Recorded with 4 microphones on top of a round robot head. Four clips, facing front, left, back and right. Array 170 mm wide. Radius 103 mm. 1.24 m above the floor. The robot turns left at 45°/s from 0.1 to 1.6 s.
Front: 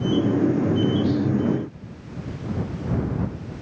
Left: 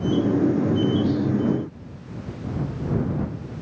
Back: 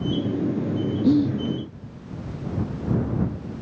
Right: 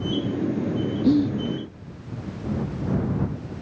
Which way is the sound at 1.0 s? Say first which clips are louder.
Right 3 dB, back 4 dB; 135° right.